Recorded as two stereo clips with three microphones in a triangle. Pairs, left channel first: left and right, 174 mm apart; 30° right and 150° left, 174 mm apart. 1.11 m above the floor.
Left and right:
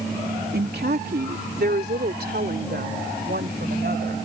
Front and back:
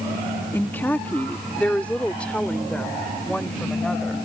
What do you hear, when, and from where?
0.5 s a woman speaking: 110° right; by 4.2 s 115° right